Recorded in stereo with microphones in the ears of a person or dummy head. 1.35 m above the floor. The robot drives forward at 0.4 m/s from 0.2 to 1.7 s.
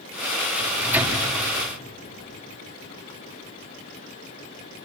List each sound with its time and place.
0.6 s a microwave: 10° right (ahead or behind), 3 m